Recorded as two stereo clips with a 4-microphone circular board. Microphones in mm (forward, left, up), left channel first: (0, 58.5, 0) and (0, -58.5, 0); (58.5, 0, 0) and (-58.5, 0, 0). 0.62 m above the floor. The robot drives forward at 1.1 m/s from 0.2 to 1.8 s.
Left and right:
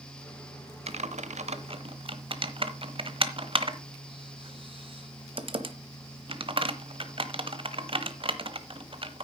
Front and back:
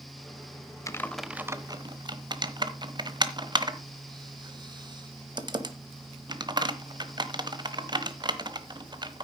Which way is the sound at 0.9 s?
65° right.